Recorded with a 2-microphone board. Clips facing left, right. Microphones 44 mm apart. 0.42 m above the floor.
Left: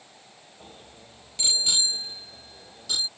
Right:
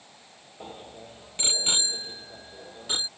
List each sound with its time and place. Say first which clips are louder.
0.6 s a bicycle bell: right 8 dB; 30° right (ahead or behind)